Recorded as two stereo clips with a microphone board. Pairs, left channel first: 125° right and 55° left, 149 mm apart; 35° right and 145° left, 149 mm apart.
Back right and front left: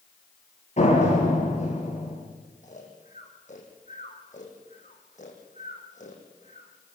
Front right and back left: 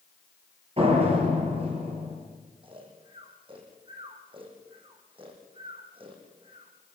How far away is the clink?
I don't hear a clink.